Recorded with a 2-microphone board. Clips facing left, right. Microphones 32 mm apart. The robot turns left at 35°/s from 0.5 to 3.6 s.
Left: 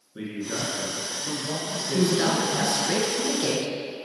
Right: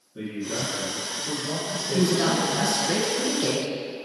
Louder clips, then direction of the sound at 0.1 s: Right 1 dB; 125° left.